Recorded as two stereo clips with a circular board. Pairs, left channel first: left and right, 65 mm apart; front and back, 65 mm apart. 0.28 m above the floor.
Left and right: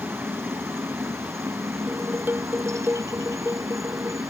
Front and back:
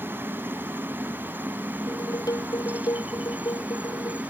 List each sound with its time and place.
0.0 s a helicopter: 130° right; by 4.3 s 110° right
1.9 s dishes clattering: 25° right